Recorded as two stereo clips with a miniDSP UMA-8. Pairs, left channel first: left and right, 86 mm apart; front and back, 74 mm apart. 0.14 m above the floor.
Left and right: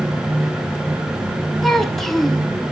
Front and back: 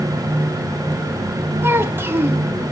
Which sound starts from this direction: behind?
A child speaking, at 1.6 s.